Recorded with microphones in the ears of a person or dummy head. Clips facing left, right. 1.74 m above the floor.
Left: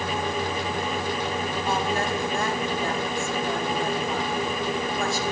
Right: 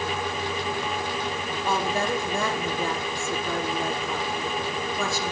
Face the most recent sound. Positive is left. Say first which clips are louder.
# right 2 dB
turn(degrees=-85)